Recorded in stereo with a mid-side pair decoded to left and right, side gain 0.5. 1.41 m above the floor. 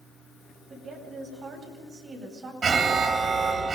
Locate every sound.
0.7 s a woman speaking: 40° right, 8 m
2.6 s an alarm: 35° right, 2 m